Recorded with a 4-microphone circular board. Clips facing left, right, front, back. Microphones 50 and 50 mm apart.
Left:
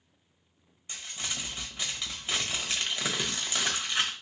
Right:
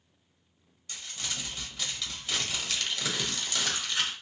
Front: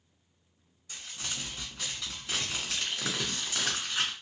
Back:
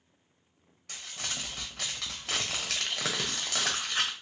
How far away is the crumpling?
About 0.9 m.